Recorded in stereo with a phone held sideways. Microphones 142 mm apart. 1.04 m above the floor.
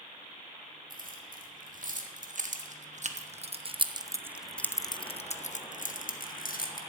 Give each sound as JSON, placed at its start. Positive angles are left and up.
{"t": 0.9, "sound": "keys jangling", "side_deg": -70, "distance_m": 2.0}